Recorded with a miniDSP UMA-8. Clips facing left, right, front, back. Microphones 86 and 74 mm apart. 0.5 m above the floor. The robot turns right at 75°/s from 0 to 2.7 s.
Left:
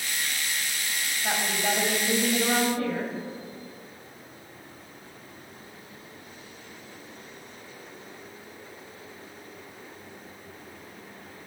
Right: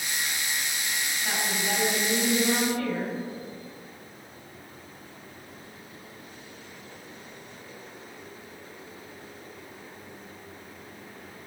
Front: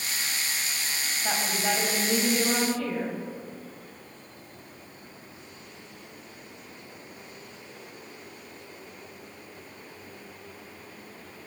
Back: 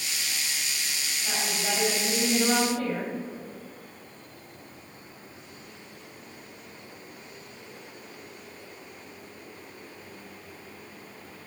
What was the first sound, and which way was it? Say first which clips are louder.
A woman speaking: left 3 dB, front 3 dB; 35° left.